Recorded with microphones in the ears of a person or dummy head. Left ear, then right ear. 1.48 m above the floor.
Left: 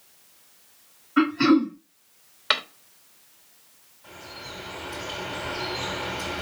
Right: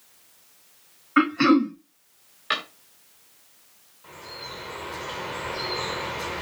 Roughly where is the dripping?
Centre.